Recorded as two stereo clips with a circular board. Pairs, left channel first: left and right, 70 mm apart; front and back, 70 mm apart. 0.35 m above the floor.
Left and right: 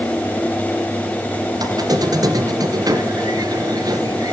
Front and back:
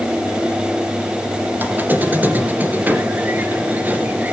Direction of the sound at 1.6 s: 115° right.